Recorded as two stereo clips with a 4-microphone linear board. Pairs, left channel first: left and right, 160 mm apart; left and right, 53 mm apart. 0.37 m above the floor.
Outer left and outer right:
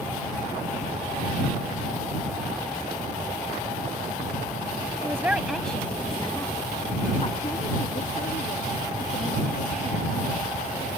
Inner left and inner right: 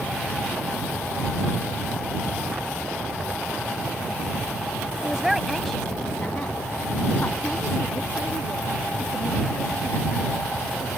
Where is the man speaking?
20° right (ahead or behind); by 10.9 s 65° left (ahead or behind).